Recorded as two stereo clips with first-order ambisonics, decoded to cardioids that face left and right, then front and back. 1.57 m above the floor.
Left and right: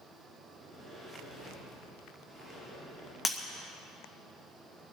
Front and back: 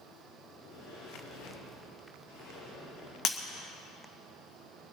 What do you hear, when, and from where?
0.5 s a sliding door: straight ahead, 6.5 m
3.2 s breaking glass: 15° left, 0.9 m